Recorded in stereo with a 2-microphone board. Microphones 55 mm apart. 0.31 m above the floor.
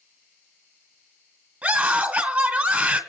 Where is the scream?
20° right (ahead or behind), 3 m.